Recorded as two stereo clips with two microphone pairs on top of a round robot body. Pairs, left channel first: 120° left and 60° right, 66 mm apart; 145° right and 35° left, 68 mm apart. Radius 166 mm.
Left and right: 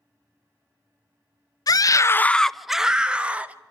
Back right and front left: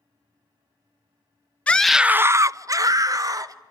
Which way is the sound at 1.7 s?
135° left.